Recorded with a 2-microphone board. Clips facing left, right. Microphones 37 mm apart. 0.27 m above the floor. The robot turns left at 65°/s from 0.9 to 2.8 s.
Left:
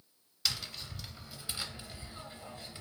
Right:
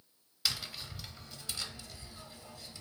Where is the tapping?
170° right, 0.6 m; by 2.8 s 65° left, 0.6 m.